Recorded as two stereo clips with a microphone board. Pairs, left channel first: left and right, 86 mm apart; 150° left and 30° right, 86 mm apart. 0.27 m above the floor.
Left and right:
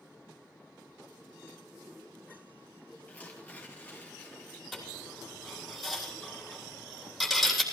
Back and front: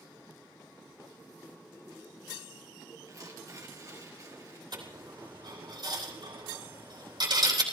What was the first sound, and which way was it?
Tearing paper, 15° left.